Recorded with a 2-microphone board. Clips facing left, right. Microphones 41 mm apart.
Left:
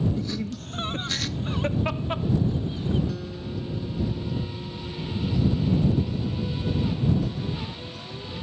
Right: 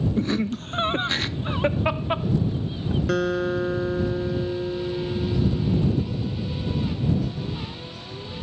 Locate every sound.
0.2 s laughter: 45° right (ahead or behind); by 3.0 s 15° right (ahead or behind)
3.1 s a guitar: 90° right